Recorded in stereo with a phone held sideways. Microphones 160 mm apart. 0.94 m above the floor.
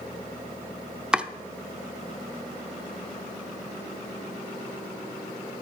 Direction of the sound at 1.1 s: 5° right (ahead or behind).